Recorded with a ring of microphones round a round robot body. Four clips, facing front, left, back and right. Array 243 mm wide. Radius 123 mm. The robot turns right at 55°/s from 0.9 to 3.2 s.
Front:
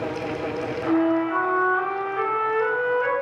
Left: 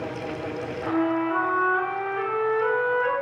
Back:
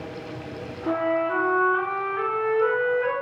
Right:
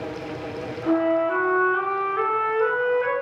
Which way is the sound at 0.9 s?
150° right.